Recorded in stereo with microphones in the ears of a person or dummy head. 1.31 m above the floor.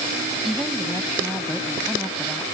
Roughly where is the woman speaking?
Centre.